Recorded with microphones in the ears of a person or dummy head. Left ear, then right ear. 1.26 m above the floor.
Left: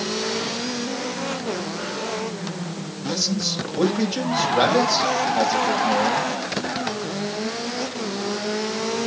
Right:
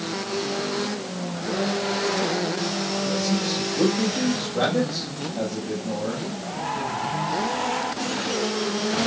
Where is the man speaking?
80° left, 6.5 m.